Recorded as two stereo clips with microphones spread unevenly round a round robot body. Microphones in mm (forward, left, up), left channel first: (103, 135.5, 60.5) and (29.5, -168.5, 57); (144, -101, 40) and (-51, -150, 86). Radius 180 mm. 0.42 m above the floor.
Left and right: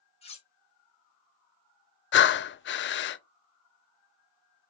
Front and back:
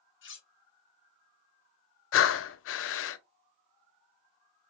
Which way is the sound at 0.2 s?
5° left.